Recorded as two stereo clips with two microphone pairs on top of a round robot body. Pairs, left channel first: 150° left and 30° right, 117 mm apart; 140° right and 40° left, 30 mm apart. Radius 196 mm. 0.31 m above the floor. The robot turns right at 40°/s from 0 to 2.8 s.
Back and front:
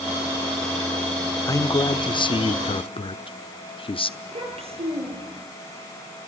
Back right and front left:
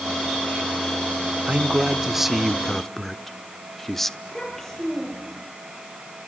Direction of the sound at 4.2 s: 65° right.